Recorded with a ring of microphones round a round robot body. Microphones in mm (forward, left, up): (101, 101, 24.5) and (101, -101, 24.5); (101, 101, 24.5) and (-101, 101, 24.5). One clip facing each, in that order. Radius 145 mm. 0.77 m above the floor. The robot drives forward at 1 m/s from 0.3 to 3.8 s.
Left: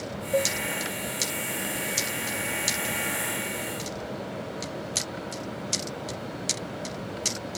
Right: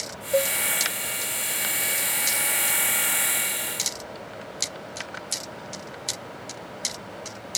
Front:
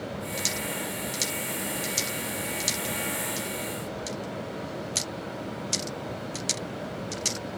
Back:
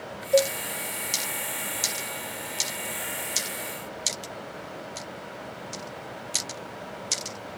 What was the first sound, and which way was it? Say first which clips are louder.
A cowbell: right 3 dB, back 15 dB; 160° right.